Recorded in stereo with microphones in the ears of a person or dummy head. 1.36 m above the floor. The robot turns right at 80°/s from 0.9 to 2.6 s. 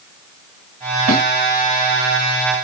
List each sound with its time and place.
1.1 s a snare drum: 75° right (ahead or behind), 4 m; by 1.2 s 65° right (ahead or behind), 4 m